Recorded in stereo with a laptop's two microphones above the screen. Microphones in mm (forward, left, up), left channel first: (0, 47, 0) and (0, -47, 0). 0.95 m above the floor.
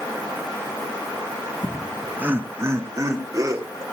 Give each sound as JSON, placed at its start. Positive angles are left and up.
{"t": 1.6, "sound": "laughter", "side_deg": 20, "distance_m": 0.7}